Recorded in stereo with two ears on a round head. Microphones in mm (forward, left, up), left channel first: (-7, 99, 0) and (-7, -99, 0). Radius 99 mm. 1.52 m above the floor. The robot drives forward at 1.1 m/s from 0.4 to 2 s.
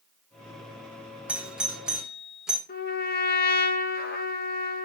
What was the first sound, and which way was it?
A doorbell, 5° right (ahead or behind).